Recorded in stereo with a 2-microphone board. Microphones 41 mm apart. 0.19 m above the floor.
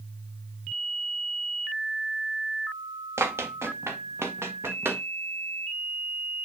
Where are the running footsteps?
85° right, 1.8 m; by 5.0 s 65° right (ahead or behind), 2 m.